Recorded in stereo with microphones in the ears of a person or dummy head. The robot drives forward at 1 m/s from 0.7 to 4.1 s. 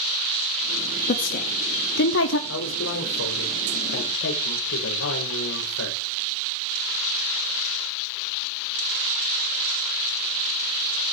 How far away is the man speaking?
About 4 m.